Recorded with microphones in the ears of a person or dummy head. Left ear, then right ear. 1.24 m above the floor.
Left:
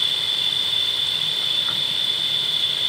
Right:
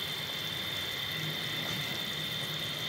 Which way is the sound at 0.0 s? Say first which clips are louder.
Left 15 dB; 30° left (ahead or behind).